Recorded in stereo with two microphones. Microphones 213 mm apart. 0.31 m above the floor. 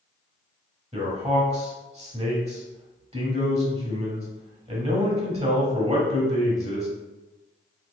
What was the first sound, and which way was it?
A man speaking, 30° right (ahead or behind).